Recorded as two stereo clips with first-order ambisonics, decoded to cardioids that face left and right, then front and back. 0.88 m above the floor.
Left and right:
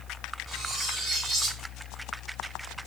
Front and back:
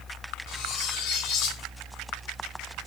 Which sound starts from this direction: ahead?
Cutlery clinking, at 0.5 s.